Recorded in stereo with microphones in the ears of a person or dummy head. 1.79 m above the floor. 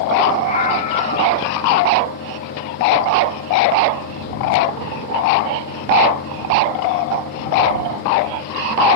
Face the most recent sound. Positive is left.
turn(degrees=45)  # may be behind; listen again after turning